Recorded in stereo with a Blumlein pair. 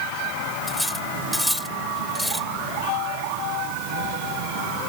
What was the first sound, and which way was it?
Cutlery clinking, straight ahead.